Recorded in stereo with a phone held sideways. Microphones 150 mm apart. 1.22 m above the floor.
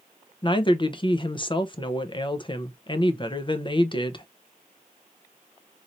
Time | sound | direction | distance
0.4 | a woman speaking | 35° left (ahead or behind) | 0.6 m